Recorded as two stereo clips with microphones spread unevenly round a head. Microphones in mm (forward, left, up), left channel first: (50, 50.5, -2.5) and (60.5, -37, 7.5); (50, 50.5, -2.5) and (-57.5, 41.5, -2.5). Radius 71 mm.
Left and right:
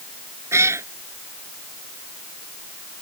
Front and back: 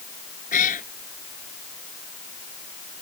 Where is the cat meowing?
25° right.